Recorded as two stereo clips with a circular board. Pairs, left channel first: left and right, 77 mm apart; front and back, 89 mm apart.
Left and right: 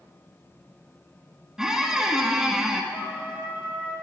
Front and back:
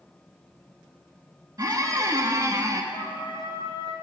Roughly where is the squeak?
Behind.